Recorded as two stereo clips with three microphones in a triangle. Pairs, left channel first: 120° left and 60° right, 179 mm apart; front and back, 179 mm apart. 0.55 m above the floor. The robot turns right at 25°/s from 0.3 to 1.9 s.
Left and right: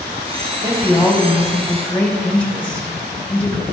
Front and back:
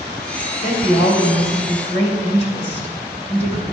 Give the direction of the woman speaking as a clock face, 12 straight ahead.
12 o'clock.